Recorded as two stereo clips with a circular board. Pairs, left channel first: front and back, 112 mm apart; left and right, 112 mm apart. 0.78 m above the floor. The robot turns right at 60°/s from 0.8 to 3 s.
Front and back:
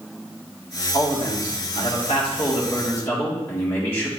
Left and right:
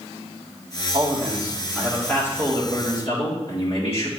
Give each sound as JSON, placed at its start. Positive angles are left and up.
{"t": 0.9, "sound": "a man speaking", "azimuth_deg": -55, "distance_m": 2.0}